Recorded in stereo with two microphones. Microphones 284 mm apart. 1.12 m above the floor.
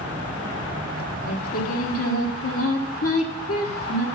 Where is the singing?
55° left (ahead or behind), 1.2 m.